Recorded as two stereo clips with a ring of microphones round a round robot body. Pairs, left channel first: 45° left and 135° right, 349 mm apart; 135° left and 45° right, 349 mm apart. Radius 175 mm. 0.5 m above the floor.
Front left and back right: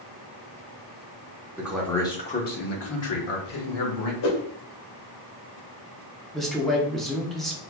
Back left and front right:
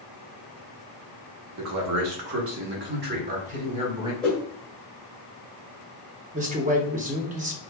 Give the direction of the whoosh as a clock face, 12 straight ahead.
10 o'clock.